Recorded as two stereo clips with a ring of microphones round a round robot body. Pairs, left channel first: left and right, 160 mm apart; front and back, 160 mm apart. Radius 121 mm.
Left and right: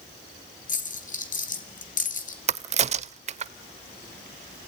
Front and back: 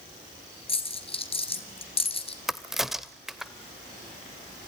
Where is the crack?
95° right, 0.6 m.